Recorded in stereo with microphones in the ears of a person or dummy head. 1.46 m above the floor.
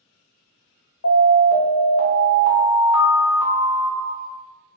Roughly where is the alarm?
Left.